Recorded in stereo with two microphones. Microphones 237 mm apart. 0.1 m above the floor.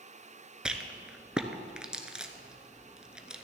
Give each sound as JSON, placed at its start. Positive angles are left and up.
{"t": 0.7, "sound": "a rattle", "side_deg": -5, "distance_m": 0.7}